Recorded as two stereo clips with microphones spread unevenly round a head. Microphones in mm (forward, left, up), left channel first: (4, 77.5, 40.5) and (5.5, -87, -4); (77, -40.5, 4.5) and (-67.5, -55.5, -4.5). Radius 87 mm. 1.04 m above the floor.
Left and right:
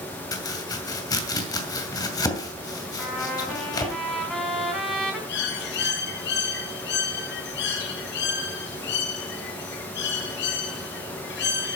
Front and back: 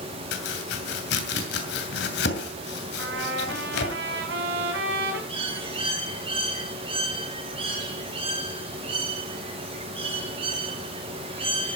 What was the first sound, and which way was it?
Chopping, 25° left.